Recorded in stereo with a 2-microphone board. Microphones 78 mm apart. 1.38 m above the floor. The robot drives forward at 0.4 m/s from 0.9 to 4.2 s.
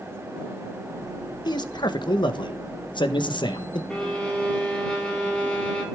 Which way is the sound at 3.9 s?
10° left (ahead or behind).